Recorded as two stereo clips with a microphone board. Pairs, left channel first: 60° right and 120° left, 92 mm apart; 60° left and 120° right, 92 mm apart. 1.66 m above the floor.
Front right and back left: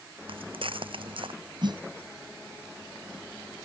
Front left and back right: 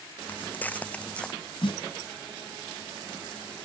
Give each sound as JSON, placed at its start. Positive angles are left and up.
{"t": 0.3, "sound": "footsteps", "azimuth_deg": 130}
{"t": 1.6, "sound": "a snare drum", "azimuth_deg": 85}